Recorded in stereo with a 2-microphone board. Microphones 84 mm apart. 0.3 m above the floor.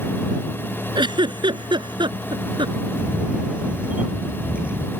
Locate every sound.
0.9 s a giggle: 70° right (ahead or behind)
3.0 s a camera shutter: 15° right (ahead or behind)